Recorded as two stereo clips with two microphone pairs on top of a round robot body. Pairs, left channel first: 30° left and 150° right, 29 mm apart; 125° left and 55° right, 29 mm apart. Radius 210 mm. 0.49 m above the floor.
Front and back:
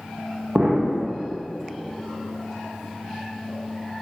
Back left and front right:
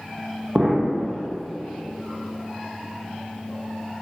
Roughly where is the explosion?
Right.